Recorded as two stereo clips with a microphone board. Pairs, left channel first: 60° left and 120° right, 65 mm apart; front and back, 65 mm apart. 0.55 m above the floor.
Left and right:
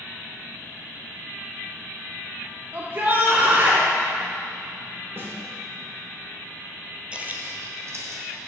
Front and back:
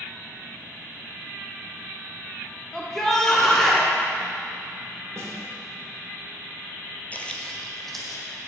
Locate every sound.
2.7 s a shout: 80° right, 0.8 m
5.2 s a snare drum: 160° right, 1.6 m
7.1 s footsteps: 55° right, 0.7 m; by 8.2 s 90° right, 1.8 m